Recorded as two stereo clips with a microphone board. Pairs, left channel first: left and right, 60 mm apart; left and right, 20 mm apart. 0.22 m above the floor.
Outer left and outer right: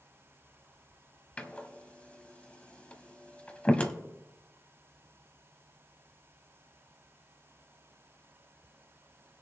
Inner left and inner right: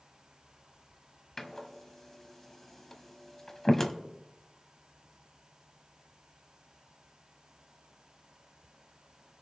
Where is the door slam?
20° left (ahead or behind), 0.8 m.